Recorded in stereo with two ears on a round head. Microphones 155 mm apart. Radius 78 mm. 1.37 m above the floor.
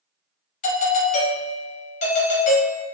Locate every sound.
0.6 s a doorbell: 40° left (ahead or behind), 0.7 m